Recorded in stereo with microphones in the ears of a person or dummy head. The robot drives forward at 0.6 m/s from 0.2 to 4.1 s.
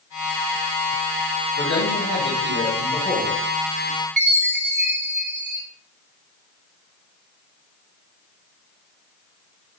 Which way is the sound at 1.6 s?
65° left (ahead or behind).